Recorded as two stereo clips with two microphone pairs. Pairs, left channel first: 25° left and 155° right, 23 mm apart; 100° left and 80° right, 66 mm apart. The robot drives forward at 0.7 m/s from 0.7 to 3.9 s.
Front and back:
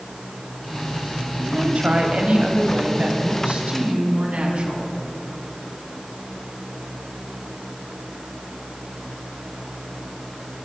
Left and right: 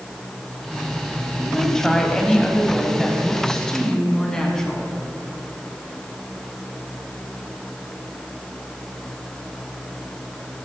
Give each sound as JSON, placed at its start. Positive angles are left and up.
{"t": 1.4, "sound": "a woman speaking", "azimuth_deg": -175, "distance_m": 2.5}